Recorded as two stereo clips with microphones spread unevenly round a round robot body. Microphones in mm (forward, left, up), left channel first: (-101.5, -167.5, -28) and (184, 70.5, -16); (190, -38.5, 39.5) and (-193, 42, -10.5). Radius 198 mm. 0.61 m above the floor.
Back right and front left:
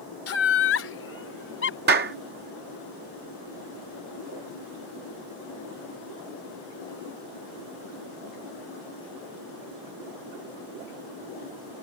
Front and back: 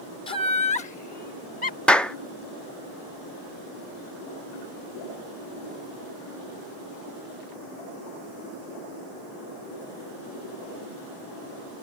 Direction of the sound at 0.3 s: 90° right.